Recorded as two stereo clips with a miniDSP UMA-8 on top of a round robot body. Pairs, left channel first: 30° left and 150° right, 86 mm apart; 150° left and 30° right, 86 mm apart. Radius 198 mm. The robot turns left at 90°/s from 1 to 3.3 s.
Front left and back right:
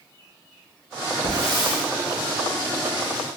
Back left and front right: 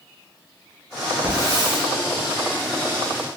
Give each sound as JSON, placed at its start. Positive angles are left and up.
{"t": 1.2, "sound": "a hiss", "azimuth_deg": 40, "distance_m": 1.0}